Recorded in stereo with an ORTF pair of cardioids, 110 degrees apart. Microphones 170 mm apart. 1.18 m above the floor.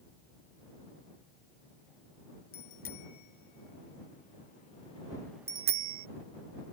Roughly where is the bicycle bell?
Ahead left.